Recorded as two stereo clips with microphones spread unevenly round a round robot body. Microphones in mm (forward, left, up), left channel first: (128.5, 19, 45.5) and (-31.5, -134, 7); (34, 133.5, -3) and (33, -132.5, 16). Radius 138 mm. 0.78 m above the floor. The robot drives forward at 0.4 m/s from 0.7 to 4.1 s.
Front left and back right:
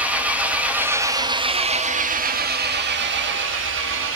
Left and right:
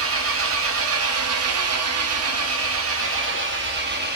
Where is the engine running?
60° right, 1.0 m; by 4.2 s 145° right, 1.3 m.